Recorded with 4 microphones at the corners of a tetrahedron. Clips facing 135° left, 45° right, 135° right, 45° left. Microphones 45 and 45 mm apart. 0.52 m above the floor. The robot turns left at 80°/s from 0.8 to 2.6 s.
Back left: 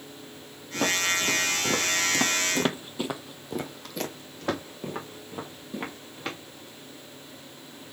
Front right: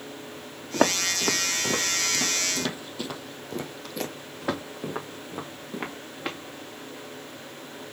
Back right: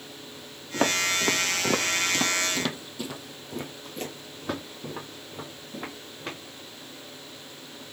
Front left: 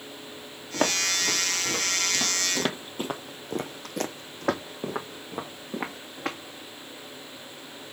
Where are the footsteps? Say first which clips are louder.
Front right 2 dB, back right 1 dB; 40° right, 1.1 m; by 6.4 s 30° left, 2 m.